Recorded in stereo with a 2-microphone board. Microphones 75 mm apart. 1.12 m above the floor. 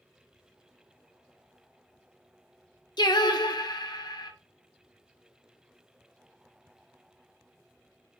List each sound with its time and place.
3.0 s singing: 65° left (ahead or behind), 0.9 m